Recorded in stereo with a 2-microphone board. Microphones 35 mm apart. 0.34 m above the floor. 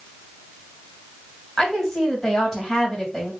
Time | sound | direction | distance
1.6 | a woman speaking | 15° left (ahead or behind) | 2 m